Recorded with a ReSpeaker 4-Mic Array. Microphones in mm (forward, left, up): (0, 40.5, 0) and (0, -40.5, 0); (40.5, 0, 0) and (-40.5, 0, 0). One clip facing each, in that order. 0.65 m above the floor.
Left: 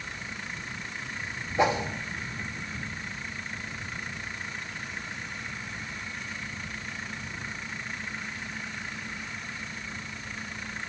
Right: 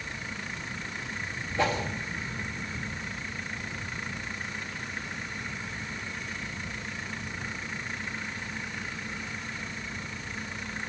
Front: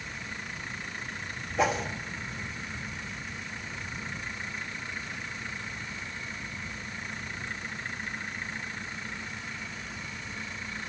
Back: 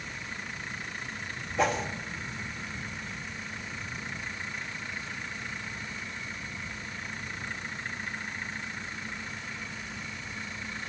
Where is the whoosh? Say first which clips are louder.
Left 3 dB, even; 80° left, 1.1 m.